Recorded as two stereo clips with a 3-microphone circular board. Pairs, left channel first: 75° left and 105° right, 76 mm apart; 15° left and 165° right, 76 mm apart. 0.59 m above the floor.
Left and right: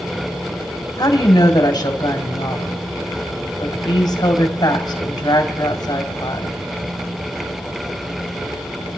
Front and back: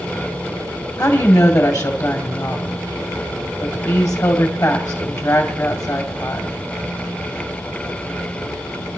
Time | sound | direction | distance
1.0 | a woman speaking | 50° left | 2.5 m